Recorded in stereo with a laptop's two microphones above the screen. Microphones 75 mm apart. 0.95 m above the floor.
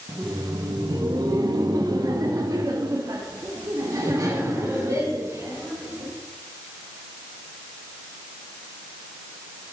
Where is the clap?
I don't hear a clap.